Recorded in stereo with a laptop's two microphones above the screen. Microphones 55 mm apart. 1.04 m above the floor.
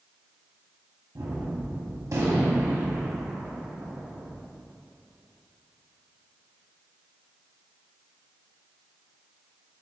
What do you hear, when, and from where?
1.1 s a gunshot: 70° right (ahead or behind), 0.9 m